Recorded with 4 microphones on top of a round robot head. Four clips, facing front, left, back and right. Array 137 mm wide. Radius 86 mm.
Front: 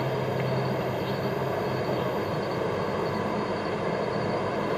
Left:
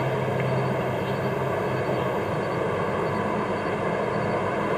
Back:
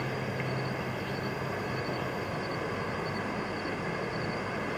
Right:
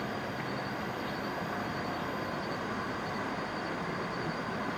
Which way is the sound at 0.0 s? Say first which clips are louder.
Left 11 dB, front 6 dB; 60° left.